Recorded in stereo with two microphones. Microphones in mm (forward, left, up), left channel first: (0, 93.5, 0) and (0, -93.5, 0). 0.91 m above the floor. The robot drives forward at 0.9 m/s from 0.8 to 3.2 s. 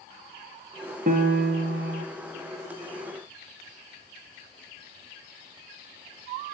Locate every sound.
1.1 s a piano: 50° right (ahead or behind), 1.0 m; by 2.0 s 65° right (ahead or behind), 0.8 m